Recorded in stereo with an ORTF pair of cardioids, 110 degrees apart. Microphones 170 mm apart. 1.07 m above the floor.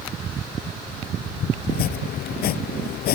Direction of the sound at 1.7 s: 65° left.